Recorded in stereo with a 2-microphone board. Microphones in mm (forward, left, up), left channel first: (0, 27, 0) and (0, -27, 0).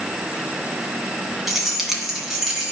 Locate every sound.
1.5 s keys jangling: 5° right (ahead or behind), 2 m